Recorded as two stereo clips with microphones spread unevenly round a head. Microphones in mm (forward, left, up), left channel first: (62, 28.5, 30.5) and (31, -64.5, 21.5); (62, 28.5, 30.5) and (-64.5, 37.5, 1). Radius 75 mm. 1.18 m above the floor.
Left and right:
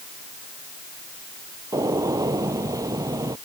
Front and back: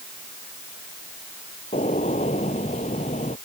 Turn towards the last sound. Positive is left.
turn(degrees=-55)